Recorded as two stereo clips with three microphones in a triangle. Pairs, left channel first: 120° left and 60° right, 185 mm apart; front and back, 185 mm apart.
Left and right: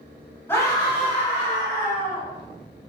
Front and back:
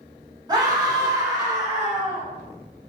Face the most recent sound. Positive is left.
turn(degrees=105)